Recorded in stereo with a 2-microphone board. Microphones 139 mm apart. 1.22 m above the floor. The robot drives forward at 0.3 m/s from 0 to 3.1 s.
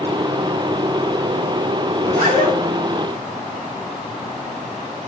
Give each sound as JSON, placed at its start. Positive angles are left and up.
{"t": 2.0, "sound": "a zipper", "side_deg": -80, "distance_m": 0.8}